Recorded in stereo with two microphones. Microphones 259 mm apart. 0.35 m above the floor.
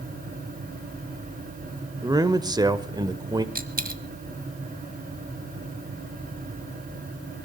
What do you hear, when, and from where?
2.0 s a man speaking: 15° right (ahead or behind), 0.9 m
3.5 s a dropped coin: 35° right (ahead or behind), 0.9 m